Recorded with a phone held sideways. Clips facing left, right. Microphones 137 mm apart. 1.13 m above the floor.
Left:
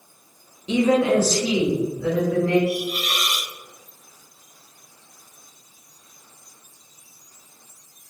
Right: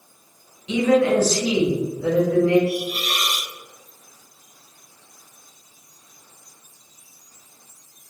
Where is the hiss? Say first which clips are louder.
Even; 40° right (ahead or behind), 1.3 m.